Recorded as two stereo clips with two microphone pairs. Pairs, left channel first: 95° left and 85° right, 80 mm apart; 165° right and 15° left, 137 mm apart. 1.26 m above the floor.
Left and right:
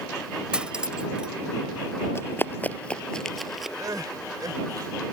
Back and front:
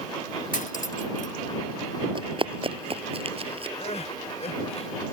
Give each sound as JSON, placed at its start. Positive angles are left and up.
{"t": 0.5, "sound": "cutlery clinking", "azimuth_deg": -165}
{"t": 2.1, "sound": "running footsteps", "azimuth_deg": 50}
{"t": 3.8, "sound": "crying", "azimuth_deg": -125}